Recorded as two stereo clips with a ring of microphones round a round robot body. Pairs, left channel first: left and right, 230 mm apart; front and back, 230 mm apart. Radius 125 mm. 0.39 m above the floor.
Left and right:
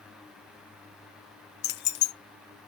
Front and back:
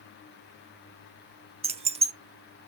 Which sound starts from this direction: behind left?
Keys jangling, at 1.6 s.